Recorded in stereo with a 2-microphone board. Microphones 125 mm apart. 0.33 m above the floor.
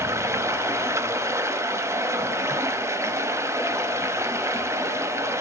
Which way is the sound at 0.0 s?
25° right (ahead or behind).